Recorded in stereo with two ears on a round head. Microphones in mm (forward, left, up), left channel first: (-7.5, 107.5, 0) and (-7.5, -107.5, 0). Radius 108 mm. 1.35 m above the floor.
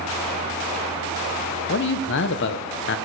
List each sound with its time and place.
1.7 s a man speaking: 50° left (ahead or behind), 0.6 m